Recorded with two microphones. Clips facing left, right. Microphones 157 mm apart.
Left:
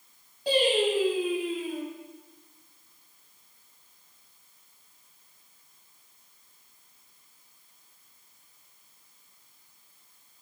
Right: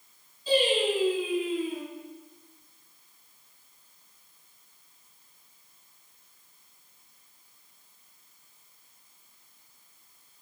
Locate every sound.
0.5 s singing: 75° left (ahead or behind), 5 m